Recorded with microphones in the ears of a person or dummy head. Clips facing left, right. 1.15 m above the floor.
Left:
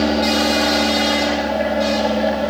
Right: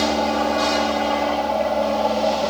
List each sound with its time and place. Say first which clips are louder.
0.0 s an aircraft: left 3 dB; 20° left (ahead or behind)